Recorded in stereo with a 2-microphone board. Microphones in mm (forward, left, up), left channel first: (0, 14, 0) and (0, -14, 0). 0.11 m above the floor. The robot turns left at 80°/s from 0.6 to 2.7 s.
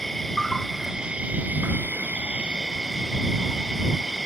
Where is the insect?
5° left; by 4.3 s 165° right.